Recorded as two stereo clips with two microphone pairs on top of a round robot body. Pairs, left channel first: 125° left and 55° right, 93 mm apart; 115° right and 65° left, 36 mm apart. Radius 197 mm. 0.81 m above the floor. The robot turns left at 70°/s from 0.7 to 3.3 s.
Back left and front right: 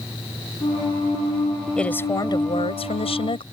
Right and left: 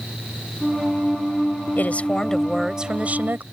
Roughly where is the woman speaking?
Behind right.